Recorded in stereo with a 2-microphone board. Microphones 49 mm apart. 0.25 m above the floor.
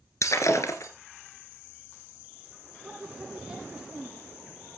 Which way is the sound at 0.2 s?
70° left (ahead or behind).